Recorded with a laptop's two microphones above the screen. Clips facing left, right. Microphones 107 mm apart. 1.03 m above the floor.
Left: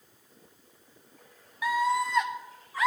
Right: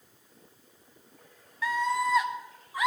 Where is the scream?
15° left (ahead or behind), 1.3 m; by 2.9 s 20° right (ahead or behind), 1.8 m.